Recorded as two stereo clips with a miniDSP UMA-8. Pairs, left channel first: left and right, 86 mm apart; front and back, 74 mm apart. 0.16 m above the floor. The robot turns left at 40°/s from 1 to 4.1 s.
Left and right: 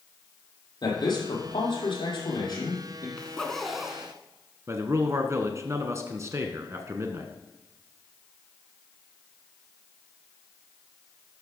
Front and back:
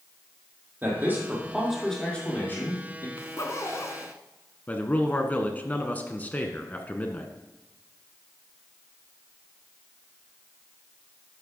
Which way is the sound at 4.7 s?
55° right.